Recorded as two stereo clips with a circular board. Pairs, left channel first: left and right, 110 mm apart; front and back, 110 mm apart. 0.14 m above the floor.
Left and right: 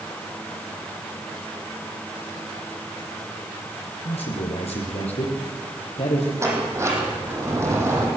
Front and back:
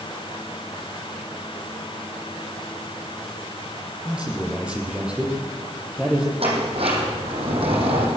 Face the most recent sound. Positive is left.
turn(degrees=-155)